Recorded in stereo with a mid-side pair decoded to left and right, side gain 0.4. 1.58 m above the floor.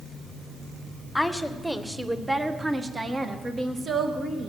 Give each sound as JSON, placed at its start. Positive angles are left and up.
{"t": 1.1, "sound": "a woman speaking", "azimuth_deg": 10, "distance_m": 1.5}